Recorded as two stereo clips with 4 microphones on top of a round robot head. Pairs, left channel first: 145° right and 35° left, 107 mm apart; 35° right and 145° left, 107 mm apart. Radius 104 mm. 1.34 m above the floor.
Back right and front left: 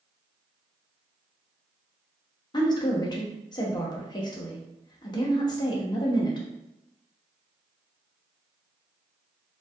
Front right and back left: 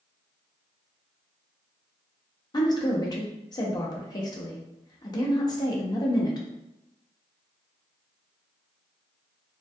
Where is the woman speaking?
90° right, 0.9 m.